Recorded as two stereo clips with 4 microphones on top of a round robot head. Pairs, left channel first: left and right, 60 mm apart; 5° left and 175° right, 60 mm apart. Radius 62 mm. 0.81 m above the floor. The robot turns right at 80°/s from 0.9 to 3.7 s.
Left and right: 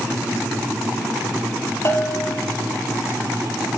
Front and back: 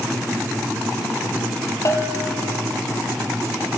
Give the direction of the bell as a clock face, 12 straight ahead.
11 o'clock.